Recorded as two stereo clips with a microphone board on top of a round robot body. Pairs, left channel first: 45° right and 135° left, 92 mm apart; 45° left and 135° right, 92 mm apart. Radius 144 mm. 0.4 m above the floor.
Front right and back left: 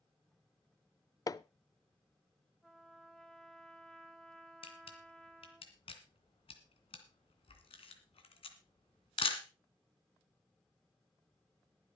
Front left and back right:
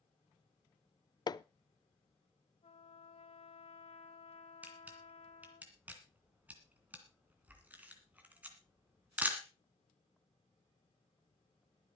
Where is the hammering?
5° left, 0.5 m.